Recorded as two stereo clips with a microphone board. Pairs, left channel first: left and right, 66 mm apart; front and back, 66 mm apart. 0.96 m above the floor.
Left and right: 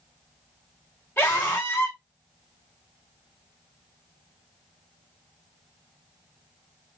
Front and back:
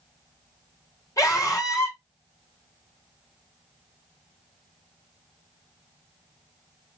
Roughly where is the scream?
Ahead left.